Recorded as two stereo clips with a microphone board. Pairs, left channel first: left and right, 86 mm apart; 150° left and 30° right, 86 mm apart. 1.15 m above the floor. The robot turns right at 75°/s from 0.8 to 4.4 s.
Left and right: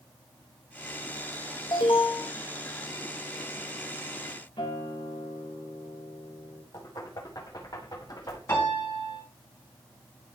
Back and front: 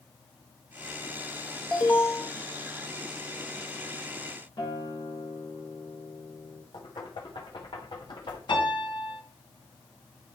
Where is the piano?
145° left, 5.5 m.